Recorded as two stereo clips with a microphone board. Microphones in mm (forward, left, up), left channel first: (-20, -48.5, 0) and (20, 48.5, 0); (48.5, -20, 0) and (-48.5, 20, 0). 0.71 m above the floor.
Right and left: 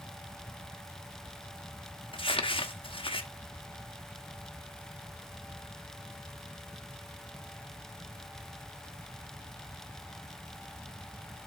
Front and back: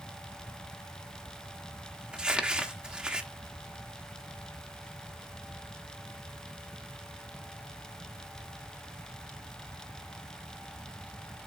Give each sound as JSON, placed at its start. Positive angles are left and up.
{"t": 2.1, "sound": "crumpling", "azimuth_deg": -120, "distance_m": 0.9}